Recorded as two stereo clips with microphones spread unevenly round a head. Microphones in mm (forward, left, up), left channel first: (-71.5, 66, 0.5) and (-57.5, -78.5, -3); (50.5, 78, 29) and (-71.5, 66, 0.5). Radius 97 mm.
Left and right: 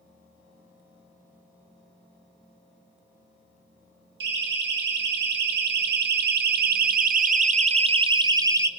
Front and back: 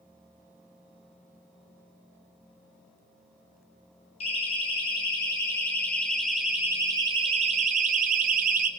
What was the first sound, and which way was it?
A siren, 55° right.